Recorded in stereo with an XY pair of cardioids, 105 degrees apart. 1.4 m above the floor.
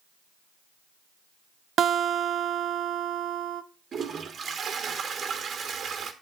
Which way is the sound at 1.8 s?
55° right.